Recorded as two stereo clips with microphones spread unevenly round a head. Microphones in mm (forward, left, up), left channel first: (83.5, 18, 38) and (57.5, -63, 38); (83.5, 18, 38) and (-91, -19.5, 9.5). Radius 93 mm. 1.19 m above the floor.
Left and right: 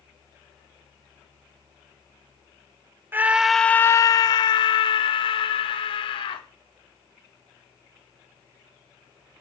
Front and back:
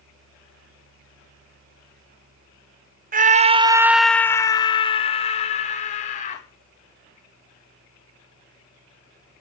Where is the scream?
170° right, 0.7 m; by 6.5 s 65° left, 1.9 m.